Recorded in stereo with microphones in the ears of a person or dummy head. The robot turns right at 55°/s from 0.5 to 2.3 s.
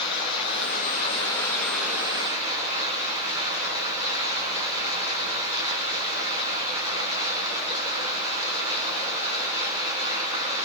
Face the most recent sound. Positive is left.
turn(degrees=-150)